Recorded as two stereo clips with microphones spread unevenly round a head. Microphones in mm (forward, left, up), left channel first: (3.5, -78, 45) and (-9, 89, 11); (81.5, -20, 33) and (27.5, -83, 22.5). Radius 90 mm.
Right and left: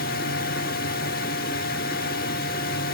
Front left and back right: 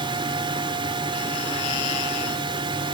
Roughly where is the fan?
Right.